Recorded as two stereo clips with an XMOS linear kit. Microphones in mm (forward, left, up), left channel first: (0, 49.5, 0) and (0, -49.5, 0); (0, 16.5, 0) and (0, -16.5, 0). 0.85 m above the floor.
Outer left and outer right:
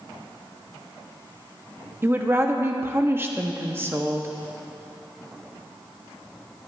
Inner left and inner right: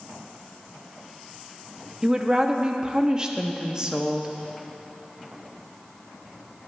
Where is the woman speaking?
25° right (ahead or behind), 1.0 m.